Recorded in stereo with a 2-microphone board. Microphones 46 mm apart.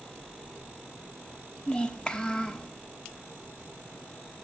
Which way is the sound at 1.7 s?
20° left (ahead or behind).